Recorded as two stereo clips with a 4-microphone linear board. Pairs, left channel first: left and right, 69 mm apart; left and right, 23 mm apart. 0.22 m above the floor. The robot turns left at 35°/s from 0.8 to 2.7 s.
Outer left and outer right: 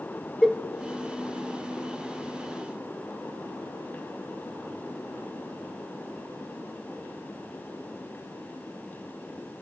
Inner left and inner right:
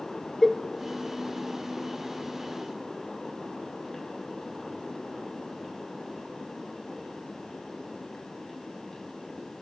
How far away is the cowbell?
About 0.5 m.